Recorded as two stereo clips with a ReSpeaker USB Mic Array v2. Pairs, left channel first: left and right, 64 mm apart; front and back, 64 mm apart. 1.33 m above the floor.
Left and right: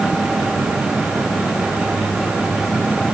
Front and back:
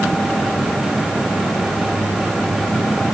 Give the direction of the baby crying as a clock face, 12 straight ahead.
No baby crying in this recording.